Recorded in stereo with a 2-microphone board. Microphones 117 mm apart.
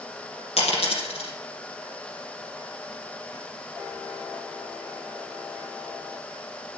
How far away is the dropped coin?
About 4.5 m.